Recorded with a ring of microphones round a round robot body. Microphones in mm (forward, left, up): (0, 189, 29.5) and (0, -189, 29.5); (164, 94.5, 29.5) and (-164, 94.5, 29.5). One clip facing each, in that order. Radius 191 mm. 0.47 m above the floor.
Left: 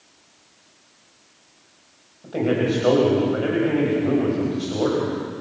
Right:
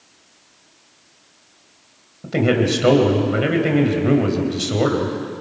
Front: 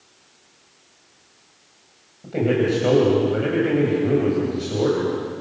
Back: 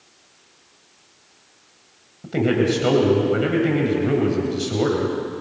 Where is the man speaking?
120° right, 3 m.